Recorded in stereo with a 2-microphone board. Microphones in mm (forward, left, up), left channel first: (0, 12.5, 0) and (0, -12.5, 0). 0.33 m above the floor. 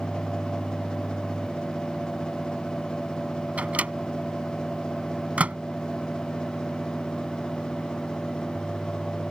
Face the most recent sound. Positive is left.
turn(degrees=-65)  # may be behind; listen again after turning